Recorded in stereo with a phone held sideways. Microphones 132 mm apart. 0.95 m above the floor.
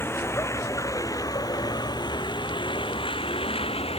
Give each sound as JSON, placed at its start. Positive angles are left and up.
{"t": 0.0, "sound": "a vehicle", "side_deg": 15}